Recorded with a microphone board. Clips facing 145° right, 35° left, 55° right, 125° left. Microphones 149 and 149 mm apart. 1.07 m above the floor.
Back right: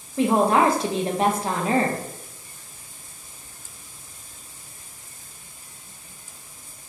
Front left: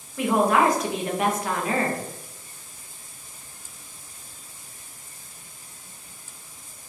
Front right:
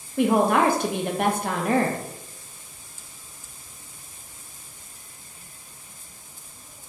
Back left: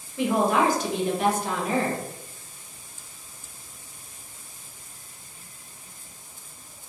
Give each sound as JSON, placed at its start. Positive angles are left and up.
{"t": 0.2, "sound": "a woman speaking", "azimuth_deg": -85, "distance_m": 0.5}